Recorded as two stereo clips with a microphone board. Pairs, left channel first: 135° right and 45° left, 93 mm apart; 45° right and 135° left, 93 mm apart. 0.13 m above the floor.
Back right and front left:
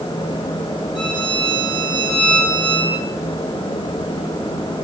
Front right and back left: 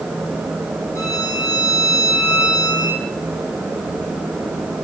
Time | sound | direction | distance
0.9 | a violin | 100° right | 4.5 m